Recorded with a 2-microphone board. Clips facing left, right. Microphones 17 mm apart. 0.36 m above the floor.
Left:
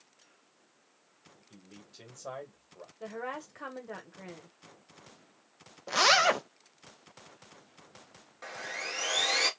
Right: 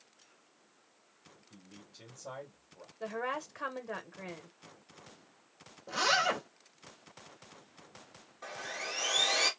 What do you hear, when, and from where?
1.5 s a man speaking: 45° left (ahead or behind), 1.4 m
3.0 s a woman speaking: 15° right (ahead or behind), 0.9 m
5.9 s a zipper: 55° left (ahead or behind), 0.6 m
8.4 s sawing: 15° left (ahead or behind), 1.5 m